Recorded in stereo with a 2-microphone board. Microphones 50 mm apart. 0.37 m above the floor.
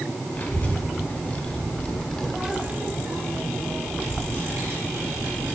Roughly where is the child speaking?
Left.